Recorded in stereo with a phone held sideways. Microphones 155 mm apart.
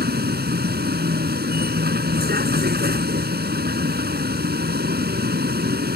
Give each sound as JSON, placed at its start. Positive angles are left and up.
{"t": 0.0, "sound": "a vehicle", "side_deg": -85}